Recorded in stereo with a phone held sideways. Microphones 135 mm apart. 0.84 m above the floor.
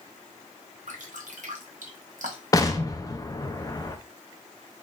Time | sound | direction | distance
0.9 | dripping | 70° right (ahead or behind) | 1.0 m
2.5 | an explosion | 25° left (ahead or behind) | 0.6 m